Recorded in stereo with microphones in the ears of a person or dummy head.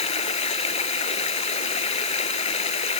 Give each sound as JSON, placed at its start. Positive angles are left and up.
{"t": 0.0, "sound": "running water", "side_deg": 40}